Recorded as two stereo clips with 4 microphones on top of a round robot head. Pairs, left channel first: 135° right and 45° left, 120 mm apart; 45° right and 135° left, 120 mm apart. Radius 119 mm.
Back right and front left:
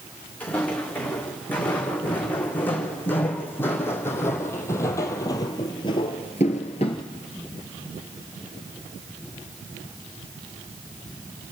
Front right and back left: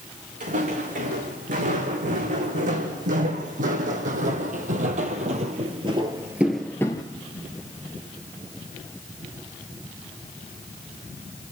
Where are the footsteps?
145° left, 6 m; by 7.0 s 90° right, 1.2 m.